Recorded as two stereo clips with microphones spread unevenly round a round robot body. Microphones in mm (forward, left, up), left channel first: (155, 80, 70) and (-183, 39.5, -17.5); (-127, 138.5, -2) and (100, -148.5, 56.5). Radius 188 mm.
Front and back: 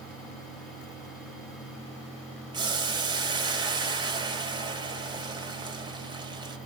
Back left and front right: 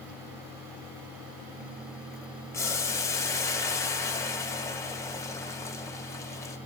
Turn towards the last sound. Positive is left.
turn(degrees=180)